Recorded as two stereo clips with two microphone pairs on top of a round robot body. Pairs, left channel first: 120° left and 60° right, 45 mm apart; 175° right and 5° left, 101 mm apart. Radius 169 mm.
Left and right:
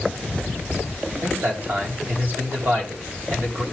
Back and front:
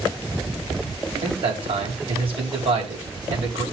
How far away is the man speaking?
About 3.5 m.